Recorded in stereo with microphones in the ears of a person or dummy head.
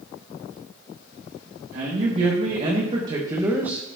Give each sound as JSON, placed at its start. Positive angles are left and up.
{"t": 1.7, "sound": "a man speaking", "side_deg": -45, "distance_m": 1.8}